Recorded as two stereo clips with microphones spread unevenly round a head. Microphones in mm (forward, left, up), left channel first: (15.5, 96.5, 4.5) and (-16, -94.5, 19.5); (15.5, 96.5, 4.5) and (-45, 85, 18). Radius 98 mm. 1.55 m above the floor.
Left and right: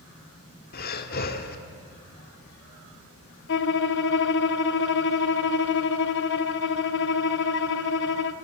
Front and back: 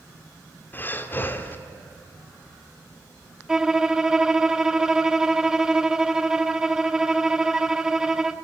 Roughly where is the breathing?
Left.